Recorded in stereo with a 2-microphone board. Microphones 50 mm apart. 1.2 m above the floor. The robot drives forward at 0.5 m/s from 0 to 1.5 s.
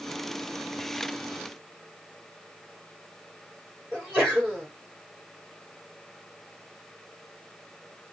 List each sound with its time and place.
3.9 s a sneeze: 10° right (ahead or behind), 3.5 m